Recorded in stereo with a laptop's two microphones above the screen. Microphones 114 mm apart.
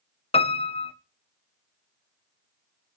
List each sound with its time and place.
0.3 s a piano: 60° left (ahead or behind), 0.6 m